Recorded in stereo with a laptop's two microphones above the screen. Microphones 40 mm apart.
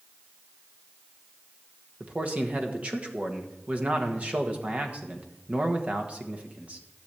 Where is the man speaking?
35° right (ahead or behind), 1.3 m.